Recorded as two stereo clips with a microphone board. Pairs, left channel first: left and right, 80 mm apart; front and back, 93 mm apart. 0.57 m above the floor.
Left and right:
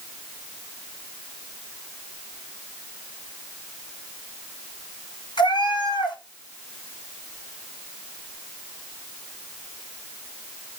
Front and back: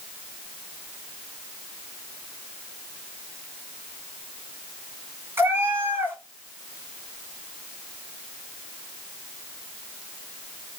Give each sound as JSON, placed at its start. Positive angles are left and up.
{"t": 5.4, "sound": "a cat meowing", "azimuth_deg": 115, "distance_m": 2.0}